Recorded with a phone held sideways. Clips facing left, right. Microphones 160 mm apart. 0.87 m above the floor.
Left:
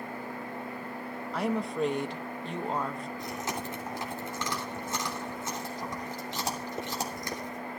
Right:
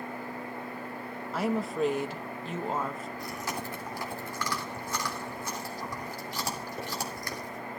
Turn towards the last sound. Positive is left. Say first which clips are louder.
# left 1 dB
turn(degrees=25)  # may be behind; listen again after turning